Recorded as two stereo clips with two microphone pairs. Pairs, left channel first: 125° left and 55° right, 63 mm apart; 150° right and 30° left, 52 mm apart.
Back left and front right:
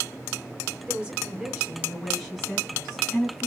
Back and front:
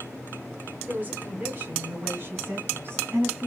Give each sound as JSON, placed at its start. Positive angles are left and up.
{"t": 0.9, "sound": "a woman speaking", "azimuth_deg": 5, "distance_m": 1.3}